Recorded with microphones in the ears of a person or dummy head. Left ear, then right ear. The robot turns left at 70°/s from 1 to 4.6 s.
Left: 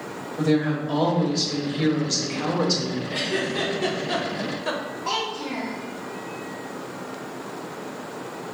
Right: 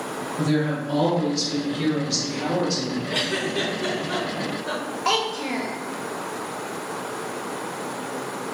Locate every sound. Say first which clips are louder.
0.4 s a woman speaking: left 2 dB; 165° left, 1.2 m; by 3.0 s 30° left, 1.2 m
3.1 s a giggle: right 2 dB; 30° right (ahead or behind), 0.5 m; by 4.8 s 65° left (ahead or behind), 0.5 m
5.0 s a child speaking: right 4 dB; 65° right (ahead or behind), 0.7 m